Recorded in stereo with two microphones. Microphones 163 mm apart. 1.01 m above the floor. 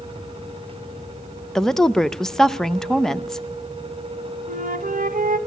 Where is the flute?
60° right (ahead or behind), 1.4 m.